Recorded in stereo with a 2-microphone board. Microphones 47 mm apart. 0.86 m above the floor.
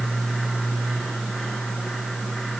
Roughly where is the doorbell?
I don't hear a doorbell.